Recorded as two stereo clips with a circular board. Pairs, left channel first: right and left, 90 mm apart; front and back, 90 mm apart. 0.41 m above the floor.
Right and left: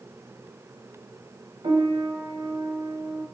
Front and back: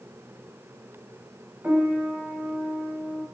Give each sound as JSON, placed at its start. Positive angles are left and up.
{"t": 1.6, "sound": "a piano", "azimuth_deg": 105, "distance_m": 0.6}